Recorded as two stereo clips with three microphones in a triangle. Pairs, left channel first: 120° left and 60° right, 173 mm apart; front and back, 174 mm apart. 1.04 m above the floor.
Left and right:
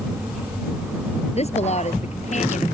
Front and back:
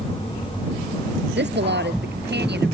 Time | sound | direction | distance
1.4 | a woman speaking | 170° left | ?